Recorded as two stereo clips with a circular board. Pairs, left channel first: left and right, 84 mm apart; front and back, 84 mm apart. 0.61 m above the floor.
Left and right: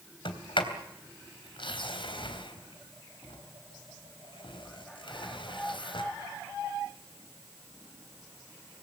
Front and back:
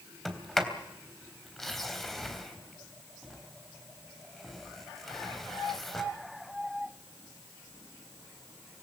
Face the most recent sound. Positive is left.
turn(degrees=85)